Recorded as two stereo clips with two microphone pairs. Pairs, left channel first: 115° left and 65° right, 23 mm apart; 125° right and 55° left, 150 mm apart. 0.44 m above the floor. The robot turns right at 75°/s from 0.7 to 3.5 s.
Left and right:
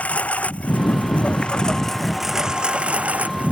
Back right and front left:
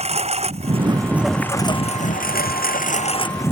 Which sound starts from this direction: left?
A lawn mower, at 0.0 s.